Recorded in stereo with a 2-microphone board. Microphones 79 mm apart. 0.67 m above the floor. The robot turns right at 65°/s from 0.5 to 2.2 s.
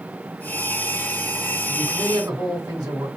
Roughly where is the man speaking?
Behind right.